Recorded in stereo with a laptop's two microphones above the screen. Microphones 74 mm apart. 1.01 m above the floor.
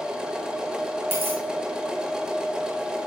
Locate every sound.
0.0 s a machine running: 10° right (ahead or behind), 0.9 m
1.1 s a dropped coin: 30° right (ahead or behind), 3 m